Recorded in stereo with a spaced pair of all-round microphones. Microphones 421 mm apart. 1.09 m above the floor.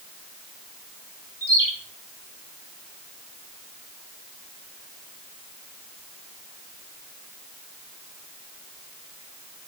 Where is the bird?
80° left, 7.5 m.